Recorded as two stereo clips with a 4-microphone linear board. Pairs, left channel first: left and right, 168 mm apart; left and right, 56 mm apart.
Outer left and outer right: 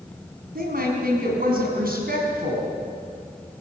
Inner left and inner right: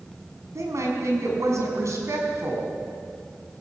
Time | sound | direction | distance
0.6 | a woman speaking | 65° right (ahead or behind) | 5 m